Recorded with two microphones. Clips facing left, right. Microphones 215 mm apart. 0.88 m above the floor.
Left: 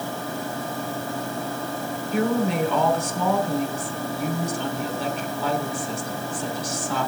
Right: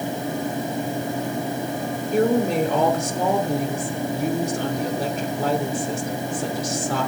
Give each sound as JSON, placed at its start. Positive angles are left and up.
{"t": 2.1, "sound": "a woman speaking", "side_deg": -45, "distance_m": 3.0}